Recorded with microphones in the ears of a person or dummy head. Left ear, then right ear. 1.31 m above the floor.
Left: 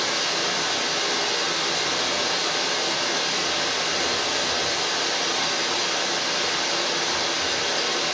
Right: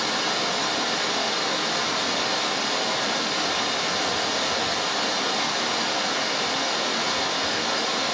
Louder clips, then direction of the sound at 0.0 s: Left 1 dB; 25° right (ahead or behind).